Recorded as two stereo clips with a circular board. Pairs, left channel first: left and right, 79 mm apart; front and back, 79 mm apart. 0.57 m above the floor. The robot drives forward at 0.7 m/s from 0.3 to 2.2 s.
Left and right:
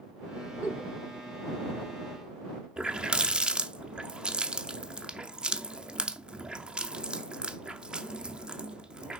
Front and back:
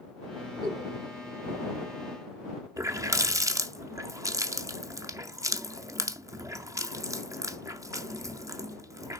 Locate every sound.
0.6 s a giggle: 150° left, 4.5 m
2.8 s a running tap: 165° right, 0.5 m